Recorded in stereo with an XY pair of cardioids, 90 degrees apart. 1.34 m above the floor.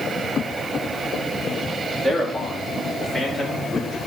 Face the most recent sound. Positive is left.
turn(degrees=30)